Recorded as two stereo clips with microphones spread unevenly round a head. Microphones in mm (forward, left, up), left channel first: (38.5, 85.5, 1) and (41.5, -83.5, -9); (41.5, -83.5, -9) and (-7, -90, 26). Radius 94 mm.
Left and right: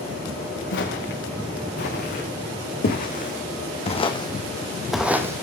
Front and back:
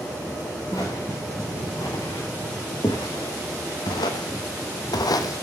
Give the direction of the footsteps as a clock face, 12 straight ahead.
9 o'clock.